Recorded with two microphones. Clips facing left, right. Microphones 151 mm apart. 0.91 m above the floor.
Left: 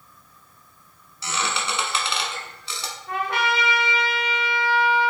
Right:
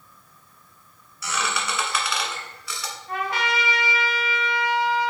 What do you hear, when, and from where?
1.2 s a squeak: 25° left (ahead or behind), 0.9 m
3.1 s a trumpet: 60° left (ahead or behind), 0.9 m